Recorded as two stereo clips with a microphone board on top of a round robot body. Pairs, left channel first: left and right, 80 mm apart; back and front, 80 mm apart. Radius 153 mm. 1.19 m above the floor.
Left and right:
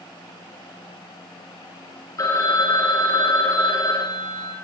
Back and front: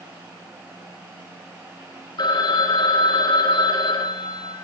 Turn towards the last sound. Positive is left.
turn(degrees=140)